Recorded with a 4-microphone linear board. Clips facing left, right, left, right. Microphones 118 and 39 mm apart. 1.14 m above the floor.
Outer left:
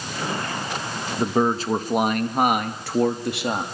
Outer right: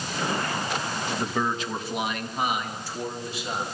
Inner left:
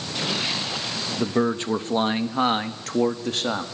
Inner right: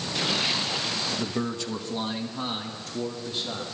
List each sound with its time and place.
1.2 s a man speaking: 25° left (ahead or behind), 1.2 m; by 3.6 s 70° left (ahead or behind), 2 m